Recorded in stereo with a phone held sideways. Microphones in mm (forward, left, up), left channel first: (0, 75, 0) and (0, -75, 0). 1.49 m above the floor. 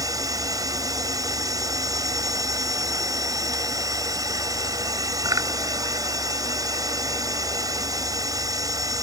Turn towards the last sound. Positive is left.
turn(degrees=-25)  # may be behind; listen again after turning